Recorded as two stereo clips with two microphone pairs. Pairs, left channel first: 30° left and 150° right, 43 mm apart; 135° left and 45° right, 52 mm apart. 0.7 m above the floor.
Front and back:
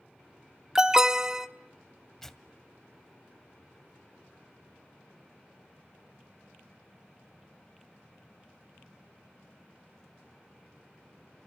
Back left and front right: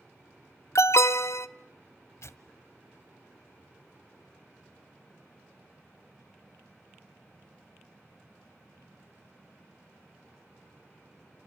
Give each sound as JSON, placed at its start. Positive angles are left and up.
{"t": 0.8, "sound": "an alarm", "azimuth_deg": 140, "distance_m": 0.9}
{"t": 2.2, "sound": "tearing paper", "azimuth_deg": 110, "distance_m": 1.4}